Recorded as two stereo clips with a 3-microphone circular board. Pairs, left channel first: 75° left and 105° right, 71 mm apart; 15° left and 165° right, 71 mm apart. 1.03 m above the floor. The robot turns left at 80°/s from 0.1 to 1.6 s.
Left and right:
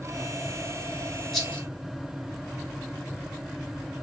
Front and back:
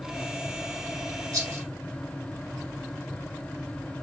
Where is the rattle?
165° left, 1.7 m; by 1.6 s 140° left, 1.7 m.